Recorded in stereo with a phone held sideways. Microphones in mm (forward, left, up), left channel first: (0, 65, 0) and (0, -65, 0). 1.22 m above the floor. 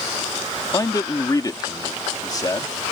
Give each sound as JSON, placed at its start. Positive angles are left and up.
{"t": 0.7, "sound": "a man speaking", "side_deg": 30}